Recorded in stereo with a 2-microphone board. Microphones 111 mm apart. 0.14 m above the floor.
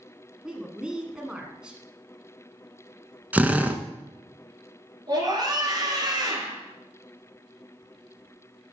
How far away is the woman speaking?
About 1.0 m.